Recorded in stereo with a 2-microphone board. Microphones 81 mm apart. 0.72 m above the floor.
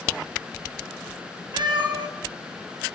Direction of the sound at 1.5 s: 65° right (ahead or behind).